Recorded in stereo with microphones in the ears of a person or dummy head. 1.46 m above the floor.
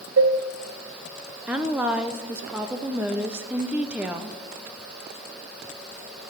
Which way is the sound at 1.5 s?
10° right (ahead or behind).